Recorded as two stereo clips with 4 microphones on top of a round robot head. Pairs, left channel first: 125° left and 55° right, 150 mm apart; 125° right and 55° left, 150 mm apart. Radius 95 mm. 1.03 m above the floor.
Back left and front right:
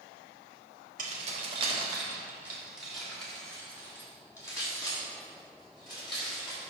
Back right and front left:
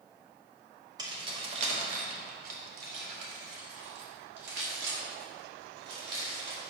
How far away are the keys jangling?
About 1.2 m.